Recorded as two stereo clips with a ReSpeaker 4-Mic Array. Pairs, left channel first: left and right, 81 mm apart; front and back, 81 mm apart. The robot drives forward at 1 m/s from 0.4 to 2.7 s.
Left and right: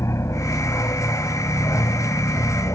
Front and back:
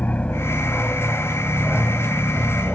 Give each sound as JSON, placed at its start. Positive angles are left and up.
{"t": 0.0, "sound": "an aircraft", "azimuth_deg": 65}